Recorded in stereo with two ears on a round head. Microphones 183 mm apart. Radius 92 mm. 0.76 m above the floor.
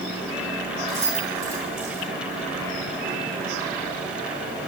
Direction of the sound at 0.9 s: 85° right.